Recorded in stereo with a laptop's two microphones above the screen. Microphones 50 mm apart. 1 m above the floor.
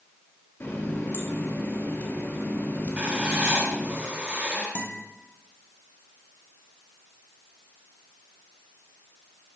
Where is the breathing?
No breathing in this recording.